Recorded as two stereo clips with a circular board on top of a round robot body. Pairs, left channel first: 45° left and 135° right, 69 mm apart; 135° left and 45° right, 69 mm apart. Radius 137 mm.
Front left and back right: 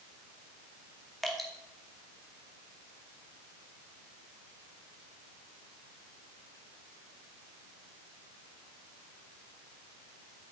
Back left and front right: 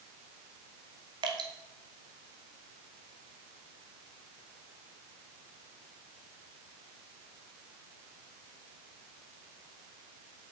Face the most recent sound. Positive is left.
turn(degrees=-45)